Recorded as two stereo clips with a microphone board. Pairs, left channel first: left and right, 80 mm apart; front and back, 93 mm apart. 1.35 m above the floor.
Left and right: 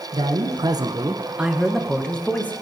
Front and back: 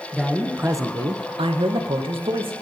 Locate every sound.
0.1 s a man speaking: 90° right, 1.2 m; by 2.5 s 160° left, 1.9 m